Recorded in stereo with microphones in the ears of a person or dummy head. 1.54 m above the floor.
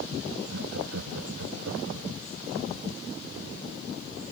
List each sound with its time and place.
0.5 s laughter: 65° right (ahead or behind); by 2.1 s 75° right (ahead or behind)